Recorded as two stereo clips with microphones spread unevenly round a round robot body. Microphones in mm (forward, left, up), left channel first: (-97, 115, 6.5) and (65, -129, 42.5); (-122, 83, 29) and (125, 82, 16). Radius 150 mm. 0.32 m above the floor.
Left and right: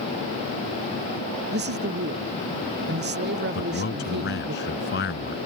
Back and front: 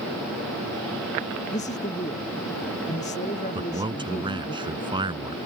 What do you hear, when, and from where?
1.5 s a man speaking: 110° right
3.5 s a man speaking: 70° left